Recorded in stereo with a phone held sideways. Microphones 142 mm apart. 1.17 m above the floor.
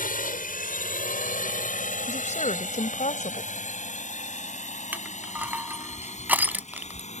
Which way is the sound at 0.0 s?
75° left (ahead or behind).